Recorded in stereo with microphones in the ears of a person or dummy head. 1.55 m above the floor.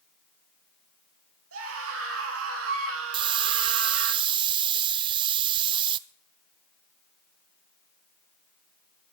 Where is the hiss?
25° right (ahead or behind), 0.6 m.